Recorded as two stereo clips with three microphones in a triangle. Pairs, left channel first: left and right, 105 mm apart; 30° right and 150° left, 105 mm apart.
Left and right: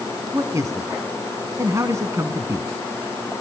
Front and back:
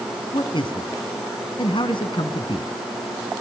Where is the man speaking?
40° right, 1.6 m.